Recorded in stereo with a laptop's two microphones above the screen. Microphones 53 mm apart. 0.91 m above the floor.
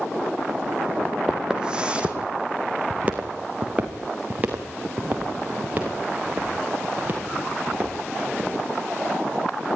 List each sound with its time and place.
1.3 s footsteps: 15° right (ahead or behind), 1.8 m; by 8.5 s 35° right (ahead or behind), 8 m